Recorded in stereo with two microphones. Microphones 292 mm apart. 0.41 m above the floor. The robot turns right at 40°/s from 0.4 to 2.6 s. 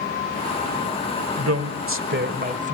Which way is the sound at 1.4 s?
80° right.